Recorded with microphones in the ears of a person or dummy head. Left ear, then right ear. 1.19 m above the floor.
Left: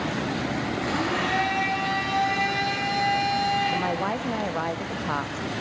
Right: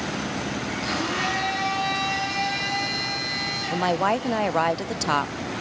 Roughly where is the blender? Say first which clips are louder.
Right 1 dB; centre.